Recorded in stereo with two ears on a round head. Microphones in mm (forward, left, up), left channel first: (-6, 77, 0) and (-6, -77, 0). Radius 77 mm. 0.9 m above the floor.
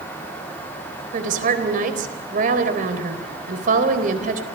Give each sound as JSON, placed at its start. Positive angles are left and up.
{"t": 1.1, "sound": "a woman speaking", "side_deg": -50, "distance_m": 3.5}